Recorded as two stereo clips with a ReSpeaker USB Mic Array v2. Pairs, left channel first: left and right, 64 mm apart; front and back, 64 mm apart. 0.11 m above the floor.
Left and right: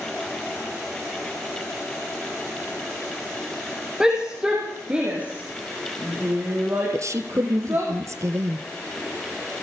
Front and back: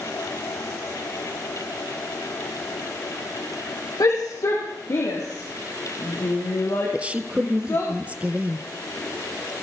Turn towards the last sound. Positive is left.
turn(degrees=-115)